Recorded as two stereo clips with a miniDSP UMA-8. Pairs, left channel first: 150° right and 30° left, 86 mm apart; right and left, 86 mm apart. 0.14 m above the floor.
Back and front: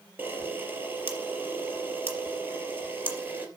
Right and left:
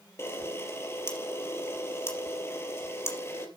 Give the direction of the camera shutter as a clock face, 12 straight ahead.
1 o'clock.